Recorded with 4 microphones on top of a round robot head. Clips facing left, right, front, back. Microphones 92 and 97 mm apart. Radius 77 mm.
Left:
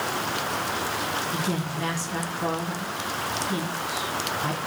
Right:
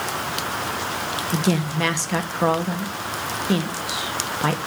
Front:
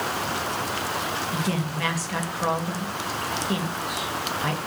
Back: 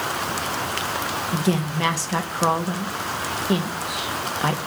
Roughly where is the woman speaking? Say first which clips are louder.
Right 6 dB, back 4 dB; behind right.